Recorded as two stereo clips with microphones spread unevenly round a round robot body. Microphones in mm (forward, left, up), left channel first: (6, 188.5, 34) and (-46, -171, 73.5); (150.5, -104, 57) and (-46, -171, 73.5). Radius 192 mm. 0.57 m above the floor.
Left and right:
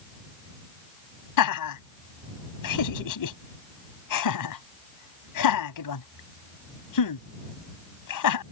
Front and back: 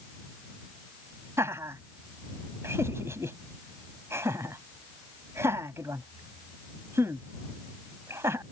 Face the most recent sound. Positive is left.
turn(degrees=115)